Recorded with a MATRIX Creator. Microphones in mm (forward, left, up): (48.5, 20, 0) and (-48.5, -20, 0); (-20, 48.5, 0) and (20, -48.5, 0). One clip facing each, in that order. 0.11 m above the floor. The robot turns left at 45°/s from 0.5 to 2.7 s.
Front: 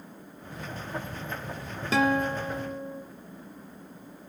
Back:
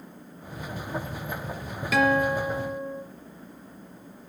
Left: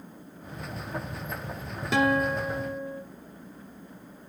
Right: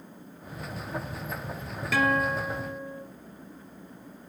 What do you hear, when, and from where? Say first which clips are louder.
1.9 s a guitar: back 2 dB, left 2 dB; 60° left, 1.0 m; by 3.0 s 25° left, 1.0 m